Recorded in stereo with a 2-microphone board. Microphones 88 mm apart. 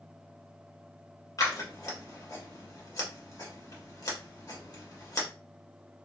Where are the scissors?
40° left (ahead or behind), 1.3 m.